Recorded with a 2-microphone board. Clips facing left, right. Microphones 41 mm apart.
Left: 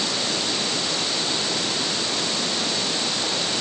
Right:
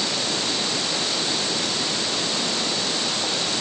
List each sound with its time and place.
Only background noise.